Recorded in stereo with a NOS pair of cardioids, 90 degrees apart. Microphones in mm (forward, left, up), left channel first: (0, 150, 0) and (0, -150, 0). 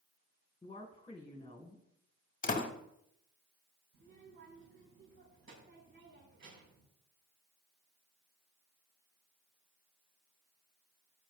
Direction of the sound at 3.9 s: 40° right.